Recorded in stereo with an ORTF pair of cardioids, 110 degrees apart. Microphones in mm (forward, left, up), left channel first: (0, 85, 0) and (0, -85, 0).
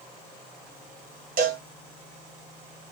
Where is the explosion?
I don't hear an explosion.